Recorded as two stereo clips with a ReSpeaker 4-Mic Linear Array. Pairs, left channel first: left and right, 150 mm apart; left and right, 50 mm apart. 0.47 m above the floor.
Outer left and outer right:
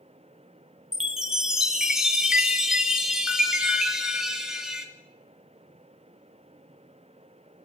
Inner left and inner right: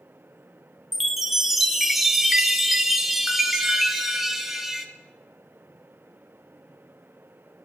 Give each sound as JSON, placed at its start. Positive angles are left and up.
{"t": 0.9, "sound": "a chime", "side_deg": -5, "distance_m": 1.2}